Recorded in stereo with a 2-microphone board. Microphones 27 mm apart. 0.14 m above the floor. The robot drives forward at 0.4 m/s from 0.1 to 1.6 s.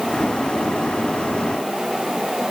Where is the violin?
No violin in this recording.